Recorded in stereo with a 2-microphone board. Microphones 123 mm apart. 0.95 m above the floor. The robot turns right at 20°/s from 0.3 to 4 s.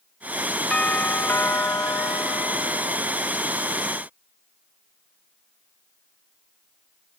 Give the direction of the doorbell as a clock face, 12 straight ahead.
12 o'clock.